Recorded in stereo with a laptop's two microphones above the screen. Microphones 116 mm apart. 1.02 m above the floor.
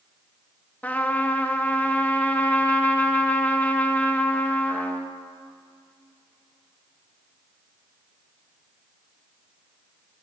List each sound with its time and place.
0.8 s a trumpet: 15° left (ahead or behind), 1.5 m